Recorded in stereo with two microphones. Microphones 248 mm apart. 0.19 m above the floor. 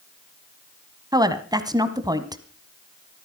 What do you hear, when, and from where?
1.1 s a woman speaking: 15° right (ahead or behind), 1.2 m